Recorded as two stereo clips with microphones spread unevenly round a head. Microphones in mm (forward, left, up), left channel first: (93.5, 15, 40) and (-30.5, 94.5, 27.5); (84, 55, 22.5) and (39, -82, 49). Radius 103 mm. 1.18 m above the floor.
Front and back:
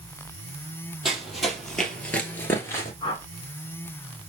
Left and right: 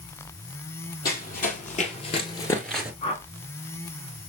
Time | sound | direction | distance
1.1 | running footsteps | 55° left | 2.5 m
3.0 | a whoosh | 30° left | 2 m